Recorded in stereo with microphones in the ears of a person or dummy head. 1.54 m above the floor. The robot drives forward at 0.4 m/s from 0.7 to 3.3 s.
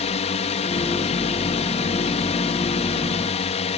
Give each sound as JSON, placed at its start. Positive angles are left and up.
{"t": 0.0, "sound": "a drone", "side_deg": 30}